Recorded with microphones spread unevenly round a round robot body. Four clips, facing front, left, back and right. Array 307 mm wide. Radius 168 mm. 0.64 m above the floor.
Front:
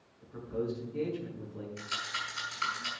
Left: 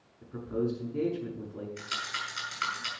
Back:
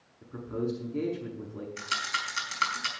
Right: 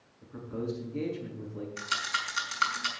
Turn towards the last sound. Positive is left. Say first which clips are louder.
# right 4 dB, back 7 dB
turn(degrees=-175)